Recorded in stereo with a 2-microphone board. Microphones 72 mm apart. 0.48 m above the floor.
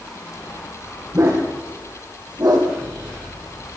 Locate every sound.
1.1 s a dog barking: 50° right (ahead or behind), 6 m; by 2.7 s 60° right (ahead or behind), 5.5 m